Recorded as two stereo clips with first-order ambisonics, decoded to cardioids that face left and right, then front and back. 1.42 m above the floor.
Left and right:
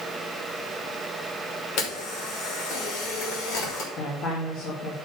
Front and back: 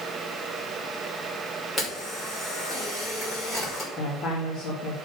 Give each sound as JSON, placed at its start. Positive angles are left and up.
{"t": 1.8, "sound": "a camera shutter", "azimuth_deg": 75, "distance_m": 3.5}
{"t": 4.0, "sound": "a woman speaking", "azimuth_deg": 45, "distance_m": 2.5}